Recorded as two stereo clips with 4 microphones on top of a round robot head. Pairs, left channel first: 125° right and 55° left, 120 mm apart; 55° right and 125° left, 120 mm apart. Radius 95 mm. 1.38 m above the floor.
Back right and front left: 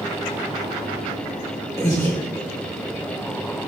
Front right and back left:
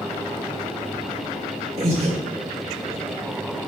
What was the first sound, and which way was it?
Breathing, 165° left.